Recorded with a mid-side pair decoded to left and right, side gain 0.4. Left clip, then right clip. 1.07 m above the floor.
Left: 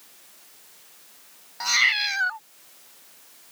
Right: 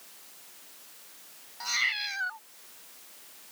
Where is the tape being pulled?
No tape being pulled in this recording.